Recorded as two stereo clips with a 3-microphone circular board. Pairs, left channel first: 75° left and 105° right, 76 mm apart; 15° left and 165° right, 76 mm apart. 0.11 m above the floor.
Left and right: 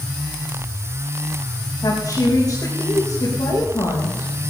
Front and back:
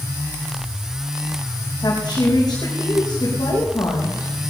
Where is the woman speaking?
40° left, 6 m.